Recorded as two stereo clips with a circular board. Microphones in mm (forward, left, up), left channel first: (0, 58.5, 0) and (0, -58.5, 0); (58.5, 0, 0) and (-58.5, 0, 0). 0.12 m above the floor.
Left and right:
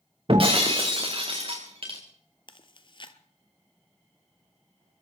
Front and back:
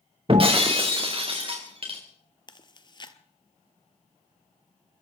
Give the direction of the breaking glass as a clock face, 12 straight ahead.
5 o'clock.